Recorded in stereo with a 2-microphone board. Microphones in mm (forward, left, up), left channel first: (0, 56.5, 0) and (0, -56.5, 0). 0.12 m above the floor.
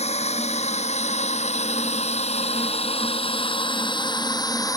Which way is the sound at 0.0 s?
70° left (ahead or behind).